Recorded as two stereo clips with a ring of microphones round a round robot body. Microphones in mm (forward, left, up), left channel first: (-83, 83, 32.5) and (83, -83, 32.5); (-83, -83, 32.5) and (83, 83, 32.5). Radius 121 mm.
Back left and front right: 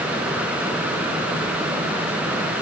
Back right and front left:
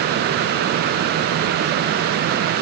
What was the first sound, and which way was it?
Only background noise.